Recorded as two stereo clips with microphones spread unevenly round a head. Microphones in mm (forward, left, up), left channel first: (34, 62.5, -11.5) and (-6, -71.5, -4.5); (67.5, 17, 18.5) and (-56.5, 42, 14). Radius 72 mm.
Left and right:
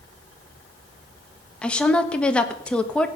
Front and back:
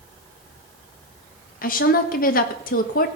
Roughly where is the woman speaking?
Ahead.